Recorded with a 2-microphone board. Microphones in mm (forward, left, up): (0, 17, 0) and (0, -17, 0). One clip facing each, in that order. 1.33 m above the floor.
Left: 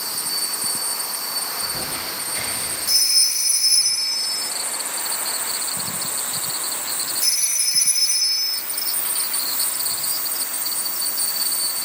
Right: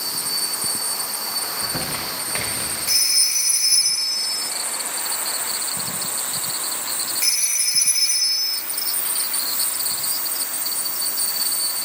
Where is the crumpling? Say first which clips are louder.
Right 1 dB; 65° right (ahead or behind), 1.1 m.